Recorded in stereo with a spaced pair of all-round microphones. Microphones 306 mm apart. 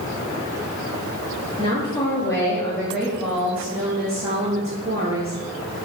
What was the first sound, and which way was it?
A woman speaking, 20° left (ahead or behind).